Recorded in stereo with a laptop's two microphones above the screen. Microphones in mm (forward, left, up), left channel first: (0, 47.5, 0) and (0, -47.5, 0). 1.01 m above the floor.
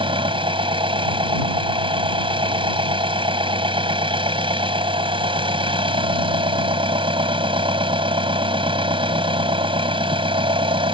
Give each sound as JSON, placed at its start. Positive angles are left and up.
{"t": 0.0, "sound": "an engine running", "side_deg": -75}